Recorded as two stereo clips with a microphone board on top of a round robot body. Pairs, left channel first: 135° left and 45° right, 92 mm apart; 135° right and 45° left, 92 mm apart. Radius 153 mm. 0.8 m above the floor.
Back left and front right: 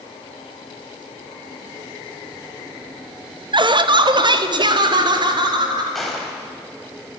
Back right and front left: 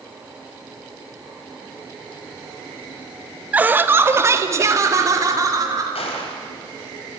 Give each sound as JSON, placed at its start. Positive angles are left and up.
{"t": 3.5, "sound": "laughter", "azimuth_deg": -25, "distance_m": 1.4}
{"t": 6.0, "sound": "a gunshot", "azimuth_deg": -135, "distance_m": 4.0}